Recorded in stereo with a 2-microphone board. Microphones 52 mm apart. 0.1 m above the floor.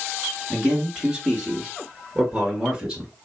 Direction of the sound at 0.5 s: 15° right (ahead or behind).